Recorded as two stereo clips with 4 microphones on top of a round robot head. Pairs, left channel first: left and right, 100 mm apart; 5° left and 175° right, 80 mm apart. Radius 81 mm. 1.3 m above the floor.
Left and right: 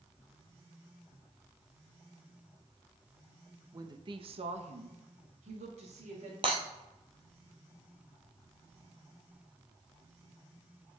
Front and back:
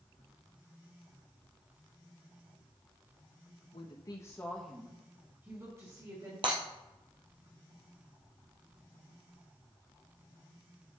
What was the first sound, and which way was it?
A woman speaking, 35° right.